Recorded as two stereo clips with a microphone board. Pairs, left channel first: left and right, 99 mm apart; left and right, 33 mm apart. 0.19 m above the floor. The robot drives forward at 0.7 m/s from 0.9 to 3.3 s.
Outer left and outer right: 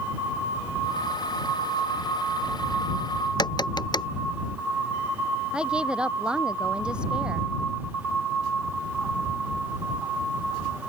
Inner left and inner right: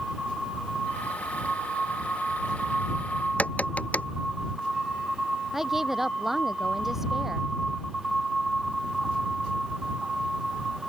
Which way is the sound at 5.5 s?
10° right (ahead or behind).